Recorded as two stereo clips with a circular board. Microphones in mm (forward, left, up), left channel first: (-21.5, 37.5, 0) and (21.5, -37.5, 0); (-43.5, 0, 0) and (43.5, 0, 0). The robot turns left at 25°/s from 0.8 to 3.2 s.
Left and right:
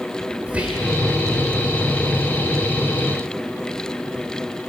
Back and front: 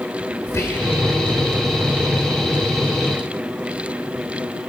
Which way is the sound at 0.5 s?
130° right.